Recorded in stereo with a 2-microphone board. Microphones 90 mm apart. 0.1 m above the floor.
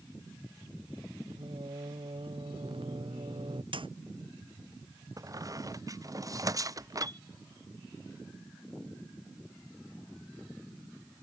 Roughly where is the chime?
Left.